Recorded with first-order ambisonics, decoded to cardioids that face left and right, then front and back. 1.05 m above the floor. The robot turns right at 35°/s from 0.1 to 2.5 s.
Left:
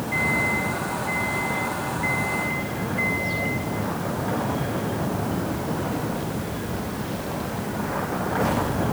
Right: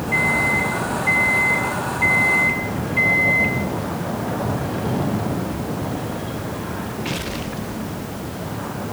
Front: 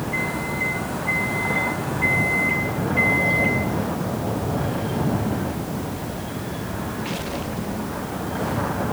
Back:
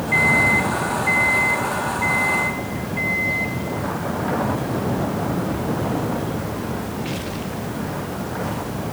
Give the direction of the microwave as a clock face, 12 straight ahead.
5 o'clock.